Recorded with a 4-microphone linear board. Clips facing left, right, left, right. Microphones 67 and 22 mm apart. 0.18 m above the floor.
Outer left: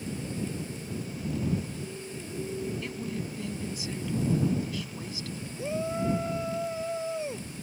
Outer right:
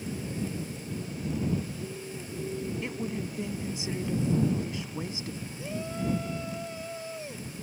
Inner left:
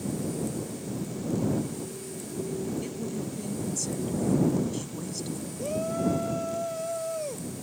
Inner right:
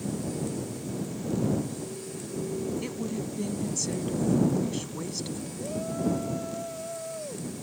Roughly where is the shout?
Left.